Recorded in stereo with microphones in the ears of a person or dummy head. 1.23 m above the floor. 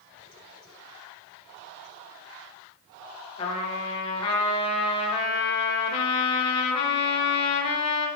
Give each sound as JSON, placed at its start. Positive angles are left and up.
{"t": 3.4, "sound": "a trumpet", "side_deg": 35, "distance_m": 0.8}